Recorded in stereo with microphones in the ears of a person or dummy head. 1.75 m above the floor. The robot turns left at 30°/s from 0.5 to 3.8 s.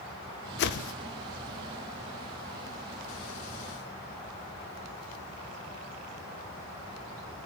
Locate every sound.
0.6 s a whoosh: 60° left (ahead or behind), 0.6 m; by 0.9 s 70° left (ahead or behind), 0.6 m